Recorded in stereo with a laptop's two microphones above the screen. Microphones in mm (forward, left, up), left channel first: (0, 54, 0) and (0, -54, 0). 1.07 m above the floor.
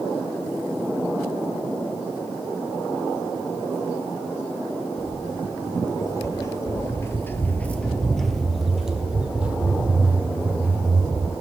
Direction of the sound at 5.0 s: 35° left (ahead or behind).